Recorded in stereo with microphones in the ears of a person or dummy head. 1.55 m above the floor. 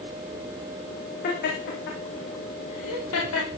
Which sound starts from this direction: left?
Laughter, at 1.2 s.